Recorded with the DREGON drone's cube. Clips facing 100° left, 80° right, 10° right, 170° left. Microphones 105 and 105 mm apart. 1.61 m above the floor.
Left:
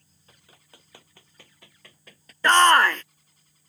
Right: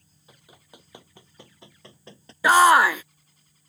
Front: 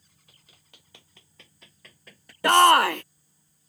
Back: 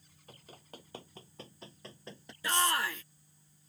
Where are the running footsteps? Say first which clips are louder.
Right 5 dB, back 11 dB; 150° right; by 2.3 s 130° right.